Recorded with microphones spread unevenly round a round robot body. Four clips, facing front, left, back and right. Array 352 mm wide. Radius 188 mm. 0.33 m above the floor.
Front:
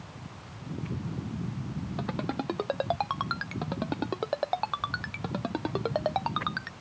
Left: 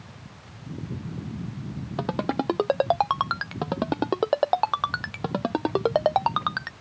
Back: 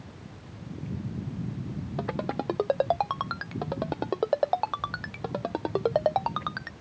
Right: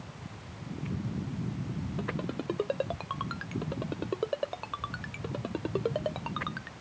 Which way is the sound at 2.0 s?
90° left.